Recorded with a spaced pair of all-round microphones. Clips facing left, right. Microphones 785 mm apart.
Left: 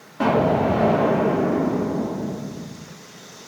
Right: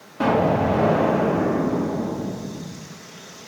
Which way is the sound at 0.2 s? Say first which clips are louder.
Left 1 dB; 5° left (ahead or behind).